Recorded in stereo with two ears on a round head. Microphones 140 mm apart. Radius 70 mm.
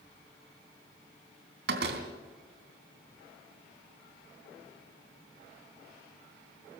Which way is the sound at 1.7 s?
75° right (ahead or behind).